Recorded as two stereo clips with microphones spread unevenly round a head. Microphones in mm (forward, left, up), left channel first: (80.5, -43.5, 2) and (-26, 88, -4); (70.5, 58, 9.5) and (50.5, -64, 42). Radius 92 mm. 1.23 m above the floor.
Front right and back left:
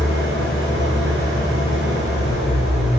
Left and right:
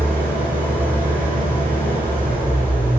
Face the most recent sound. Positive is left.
turn(degrees=160)